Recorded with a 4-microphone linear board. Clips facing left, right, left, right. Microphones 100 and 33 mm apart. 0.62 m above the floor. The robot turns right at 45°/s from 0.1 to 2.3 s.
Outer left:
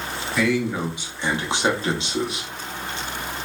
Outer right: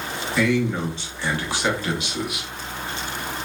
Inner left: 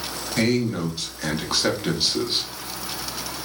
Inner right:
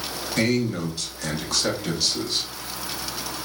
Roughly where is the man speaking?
Centre.